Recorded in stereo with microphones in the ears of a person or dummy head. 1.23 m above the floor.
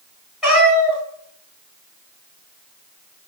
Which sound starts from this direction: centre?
A cat meowing, at 0.4 s.